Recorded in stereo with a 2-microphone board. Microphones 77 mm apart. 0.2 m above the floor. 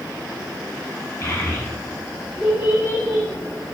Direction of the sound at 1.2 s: 40° left (ahead or behind).